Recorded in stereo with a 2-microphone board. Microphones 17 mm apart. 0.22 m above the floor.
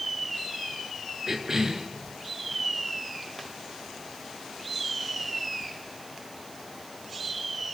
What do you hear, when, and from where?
1.3 s a cough: 25° right (ahead or behind), 3 m